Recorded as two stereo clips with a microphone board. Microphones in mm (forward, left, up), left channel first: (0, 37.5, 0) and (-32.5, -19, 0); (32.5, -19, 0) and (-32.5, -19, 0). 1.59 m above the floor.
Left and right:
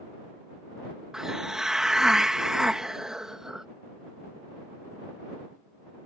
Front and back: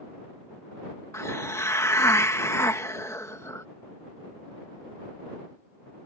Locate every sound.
1.1 s a hiss: 40° right